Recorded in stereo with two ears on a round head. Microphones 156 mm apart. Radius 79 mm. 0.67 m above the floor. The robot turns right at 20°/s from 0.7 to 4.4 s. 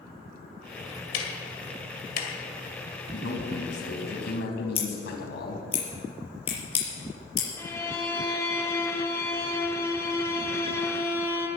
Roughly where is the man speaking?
Left.